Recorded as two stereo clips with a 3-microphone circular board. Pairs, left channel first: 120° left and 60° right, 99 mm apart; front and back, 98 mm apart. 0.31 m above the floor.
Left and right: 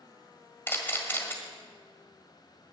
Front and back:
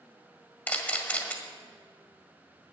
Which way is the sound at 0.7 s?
60° left.